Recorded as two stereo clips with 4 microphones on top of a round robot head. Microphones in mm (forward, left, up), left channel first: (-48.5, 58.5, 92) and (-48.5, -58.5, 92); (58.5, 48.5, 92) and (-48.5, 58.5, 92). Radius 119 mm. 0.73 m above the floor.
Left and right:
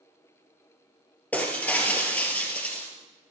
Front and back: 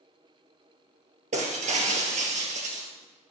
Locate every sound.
1.3 s breaking glass: 170° left, 4 m